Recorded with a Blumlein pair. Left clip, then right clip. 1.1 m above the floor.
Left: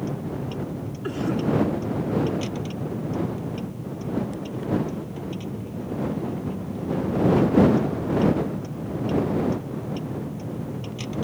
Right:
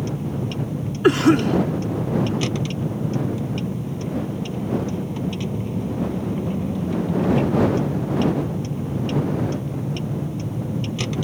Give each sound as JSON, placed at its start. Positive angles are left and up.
{"t": 0.0, "sound": "a vehicle", "azimuth_deg": -65}
{"t": 1.0, "sound": "a cough", "azimuth_deg": -35}